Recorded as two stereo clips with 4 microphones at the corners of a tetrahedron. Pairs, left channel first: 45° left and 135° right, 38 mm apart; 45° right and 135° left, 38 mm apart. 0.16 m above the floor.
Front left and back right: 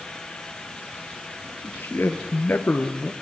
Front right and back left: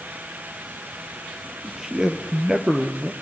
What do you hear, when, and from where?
1.6 s a man speaking: 55° left, 3 m; by 3.1 s 80° left, 2.5 m